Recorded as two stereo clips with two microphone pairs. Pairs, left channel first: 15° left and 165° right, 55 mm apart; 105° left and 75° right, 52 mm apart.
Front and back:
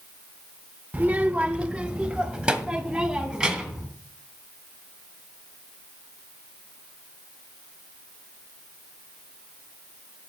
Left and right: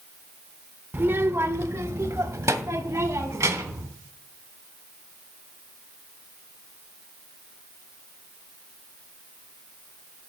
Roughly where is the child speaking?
Behind right.